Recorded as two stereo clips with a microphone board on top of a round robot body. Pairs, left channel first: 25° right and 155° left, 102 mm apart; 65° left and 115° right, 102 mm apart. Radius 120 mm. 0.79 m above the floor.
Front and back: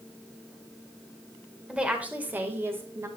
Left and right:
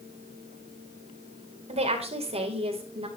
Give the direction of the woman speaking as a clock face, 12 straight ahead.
4 o'clock.